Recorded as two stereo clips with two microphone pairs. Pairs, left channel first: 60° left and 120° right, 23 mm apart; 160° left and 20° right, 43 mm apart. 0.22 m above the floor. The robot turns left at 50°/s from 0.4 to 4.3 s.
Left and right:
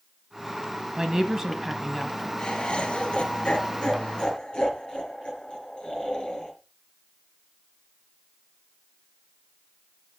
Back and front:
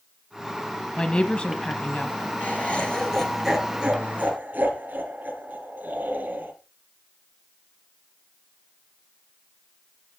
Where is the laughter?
120° left, 5 m; by 6.5 s 25° left, 5 m.